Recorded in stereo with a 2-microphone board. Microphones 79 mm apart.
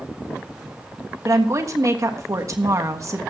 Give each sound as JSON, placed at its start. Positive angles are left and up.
{"t": 1.2, "sound": "a woman speaking", "side_deg": -40, "distance_m": 1.4}